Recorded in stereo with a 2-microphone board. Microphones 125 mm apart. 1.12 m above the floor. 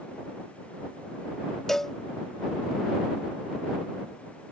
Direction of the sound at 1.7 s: Centre (ahead or behind).